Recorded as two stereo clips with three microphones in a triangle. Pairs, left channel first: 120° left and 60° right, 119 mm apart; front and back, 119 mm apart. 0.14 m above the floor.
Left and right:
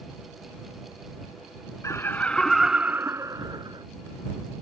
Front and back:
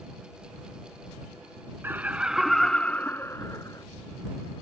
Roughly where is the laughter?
Behind left.